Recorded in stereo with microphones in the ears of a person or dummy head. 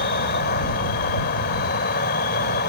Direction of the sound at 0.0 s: 60° left (ahead or behind).